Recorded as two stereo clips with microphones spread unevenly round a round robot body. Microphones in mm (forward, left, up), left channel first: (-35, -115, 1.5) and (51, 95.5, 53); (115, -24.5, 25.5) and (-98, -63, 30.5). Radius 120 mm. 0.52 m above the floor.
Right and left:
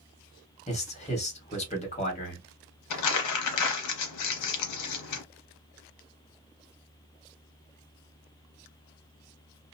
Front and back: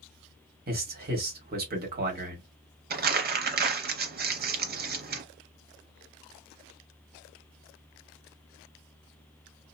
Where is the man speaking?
145° right, 1.5 m.